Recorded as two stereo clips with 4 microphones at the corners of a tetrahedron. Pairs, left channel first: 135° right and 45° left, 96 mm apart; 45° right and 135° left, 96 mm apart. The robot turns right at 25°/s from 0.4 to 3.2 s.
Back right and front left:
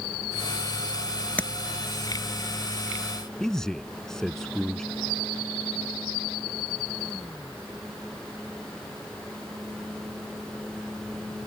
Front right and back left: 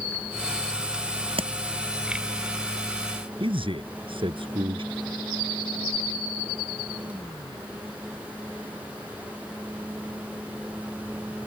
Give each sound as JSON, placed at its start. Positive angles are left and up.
{"t": 1.4, "sound": "tapping", "azimuth_deg": 150}
{"t": 3.4, "sound": "a man speaking", "azimuth_deg": 140}